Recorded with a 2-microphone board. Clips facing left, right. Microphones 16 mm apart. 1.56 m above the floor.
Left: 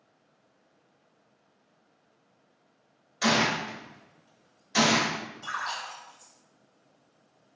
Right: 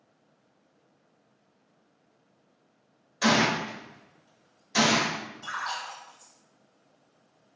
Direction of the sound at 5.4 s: 5° left (ahead or behind).